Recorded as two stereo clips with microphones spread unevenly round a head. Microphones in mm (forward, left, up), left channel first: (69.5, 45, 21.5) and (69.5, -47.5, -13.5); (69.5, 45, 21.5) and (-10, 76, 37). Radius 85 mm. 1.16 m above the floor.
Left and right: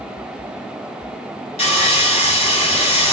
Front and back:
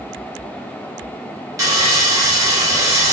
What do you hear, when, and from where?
1.6 s sawing: 110° left, 2.5 m